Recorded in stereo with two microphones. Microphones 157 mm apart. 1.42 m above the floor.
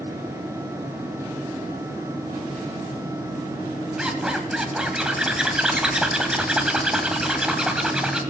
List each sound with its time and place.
4.0 s a zipper: 5° right (ahead or behind), 1.7 m